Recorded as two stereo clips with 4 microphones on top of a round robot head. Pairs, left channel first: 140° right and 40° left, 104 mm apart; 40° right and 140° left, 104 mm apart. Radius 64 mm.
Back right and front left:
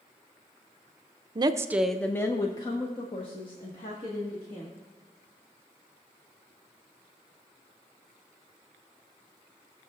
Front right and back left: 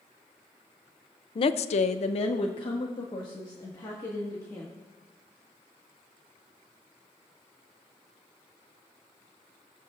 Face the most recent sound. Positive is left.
turn(degrees=-105)